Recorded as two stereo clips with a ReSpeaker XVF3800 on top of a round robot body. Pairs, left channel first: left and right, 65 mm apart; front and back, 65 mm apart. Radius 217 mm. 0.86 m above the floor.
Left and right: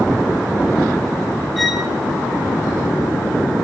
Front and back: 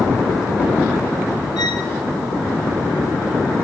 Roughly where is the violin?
Ahead.